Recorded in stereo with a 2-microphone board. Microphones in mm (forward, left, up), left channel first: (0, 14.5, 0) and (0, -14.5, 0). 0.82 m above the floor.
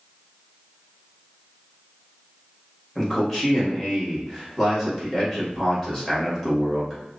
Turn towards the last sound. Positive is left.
turn(degrees=20)  # may be behind; listen again after turning